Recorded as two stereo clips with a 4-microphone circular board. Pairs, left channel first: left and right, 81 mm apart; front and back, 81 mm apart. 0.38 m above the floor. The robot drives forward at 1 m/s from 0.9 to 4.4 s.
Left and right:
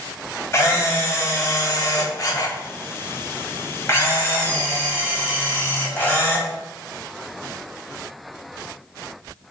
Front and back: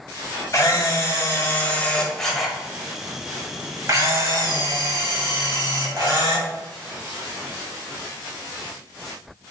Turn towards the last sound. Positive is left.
turn(degrees=145)